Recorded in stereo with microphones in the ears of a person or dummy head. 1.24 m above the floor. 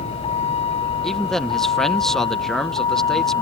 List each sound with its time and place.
0.0 s a vehicle: 40° left (ahead or behind); by 3.4 s 35° left (ahead or behind)
1.0 s a man speaking: 5° right (ahead or behind)